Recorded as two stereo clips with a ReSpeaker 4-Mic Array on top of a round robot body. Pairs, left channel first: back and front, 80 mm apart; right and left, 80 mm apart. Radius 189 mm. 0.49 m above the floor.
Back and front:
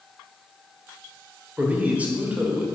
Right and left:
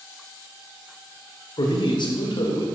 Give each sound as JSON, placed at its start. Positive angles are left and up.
{"t": 1.6, "sound": "a man speaking", "azimuth_deg": -70, "distance_m": 2.0}